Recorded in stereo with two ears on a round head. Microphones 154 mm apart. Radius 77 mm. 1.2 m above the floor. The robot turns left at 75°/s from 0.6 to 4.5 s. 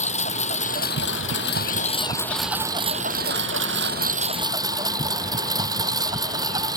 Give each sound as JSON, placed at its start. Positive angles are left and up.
{"t": 0.0, "sound": "a lawn mower", "azimuth_deg": 135}